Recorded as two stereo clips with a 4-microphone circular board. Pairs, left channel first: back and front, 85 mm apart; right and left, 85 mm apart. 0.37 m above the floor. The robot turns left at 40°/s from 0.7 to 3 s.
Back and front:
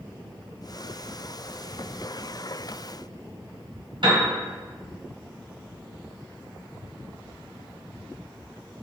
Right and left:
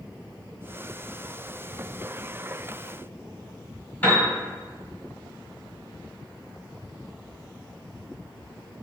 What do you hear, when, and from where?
4.0 s a piano: 20° right, 1.7 m